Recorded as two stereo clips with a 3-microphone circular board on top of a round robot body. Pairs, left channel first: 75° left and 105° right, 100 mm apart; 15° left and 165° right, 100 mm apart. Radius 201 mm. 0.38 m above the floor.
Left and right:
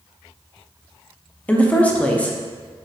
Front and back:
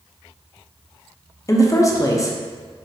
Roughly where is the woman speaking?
Ahead.